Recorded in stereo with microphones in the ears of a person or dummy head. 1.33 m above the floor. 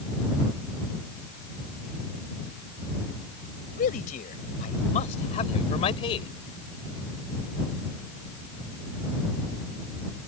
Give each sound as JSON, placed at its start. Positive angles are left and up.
{"t": 3.8, "sound": "a man speaking", "side_deg": 50}